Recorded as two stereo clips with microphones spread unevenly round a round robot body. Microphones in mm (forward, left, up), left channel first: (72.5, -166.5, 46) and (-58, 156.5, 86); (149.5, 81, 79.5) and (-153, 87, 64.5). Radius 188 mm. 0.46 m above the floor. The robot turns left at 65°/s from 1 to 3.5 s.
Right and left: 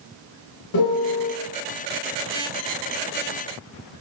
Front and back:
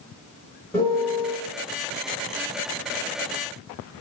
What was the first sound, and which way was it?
A piano, 90° right.